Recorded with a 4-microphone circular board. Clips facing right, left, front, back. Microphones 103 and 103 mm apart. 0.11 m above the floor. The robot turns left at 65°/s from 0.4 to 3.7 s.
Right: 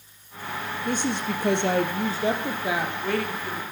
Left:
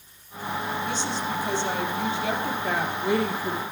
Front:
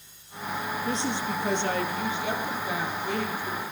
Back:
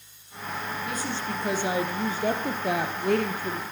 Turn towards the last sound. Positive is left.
turn(degrees=125)